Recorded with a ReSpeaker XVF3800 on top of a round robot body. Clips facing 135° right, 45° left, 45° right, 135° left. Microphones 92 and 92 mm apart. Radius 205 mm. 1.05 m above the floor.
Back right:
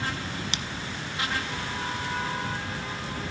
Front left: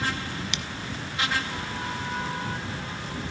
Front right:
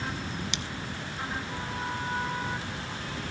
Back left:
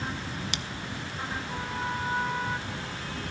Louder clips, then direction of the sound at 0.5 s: Even, even; 175° left.